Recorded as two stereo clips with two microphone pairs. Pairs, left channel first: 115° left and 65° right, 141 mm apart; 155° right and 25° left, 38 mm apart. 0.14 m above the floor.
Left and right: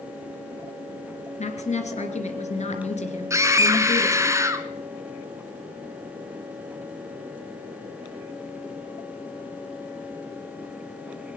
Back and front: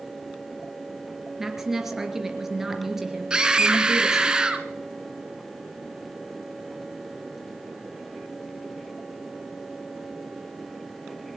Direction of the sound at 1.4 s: 105° left.